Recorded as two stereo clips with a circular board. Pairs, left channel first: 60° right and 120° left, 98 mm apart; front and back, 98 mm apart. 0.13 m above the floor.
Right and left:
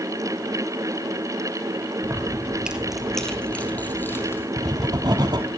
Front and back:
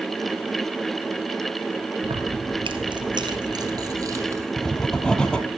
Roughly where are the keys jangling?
Behind.